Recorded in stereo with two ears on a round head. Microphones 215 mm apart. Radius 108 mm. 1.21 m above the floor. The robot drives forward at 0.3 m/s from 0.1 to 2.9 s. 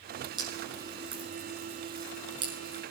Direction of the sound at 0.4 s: 20° right (ahead or behind).